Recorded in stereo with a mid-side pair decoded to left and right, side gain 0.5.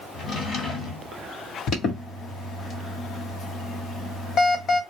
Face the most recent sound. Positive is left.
turn(degrees=60)